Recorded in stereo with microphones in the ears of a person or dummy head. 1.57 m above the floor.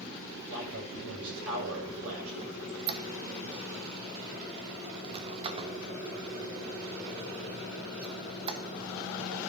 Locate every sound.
0.5 s a man speaking: 70° right (ahead or behind), 6.5 m
2.4 s a squeak: 30° right (ahead or behind), 0.8 m